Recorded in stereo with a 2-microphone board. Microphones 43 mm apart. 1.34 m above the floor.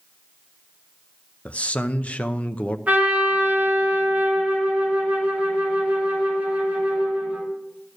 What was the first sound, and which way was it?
A man speaking, 30° left (ahead or behind).